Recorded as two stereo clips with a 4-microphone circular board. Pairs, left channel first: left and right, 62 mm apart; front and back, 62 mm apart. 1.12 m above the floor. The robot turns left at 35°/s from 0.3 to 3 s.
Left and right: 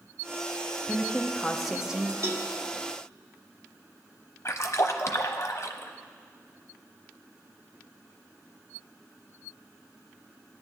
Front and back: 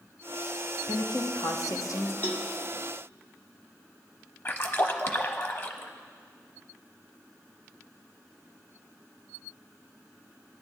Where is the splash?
50° left, 0.8 m.